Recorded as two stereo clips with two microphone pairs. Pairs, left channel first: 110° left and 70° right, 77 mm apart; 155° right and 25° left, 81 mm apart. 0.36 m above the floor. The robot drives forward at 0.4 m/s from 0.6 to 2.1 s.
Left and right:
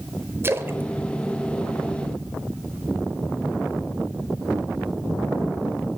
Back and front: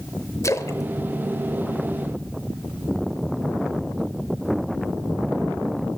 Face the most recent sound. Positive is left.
turn(degrees=-155)